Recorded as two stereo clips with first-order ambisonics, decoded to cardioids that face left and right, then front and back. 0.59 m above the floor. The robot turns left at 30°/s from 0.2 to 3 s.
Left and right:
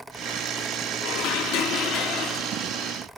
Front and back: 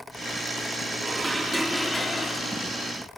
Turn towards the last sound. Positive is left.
turn(degrees=50)